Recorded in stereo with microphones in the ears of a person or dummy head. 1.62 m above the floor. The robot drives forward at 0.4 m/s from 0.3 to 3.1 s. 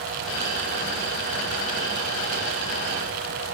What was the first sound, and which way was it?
Only background noise.